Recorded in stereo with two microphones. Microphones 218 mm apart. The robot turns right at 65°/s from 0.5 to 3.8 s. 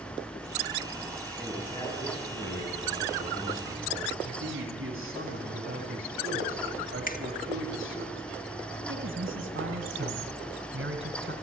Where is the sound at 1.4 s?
5° right, 8 m; by 4.1 s 155° left, 8 m.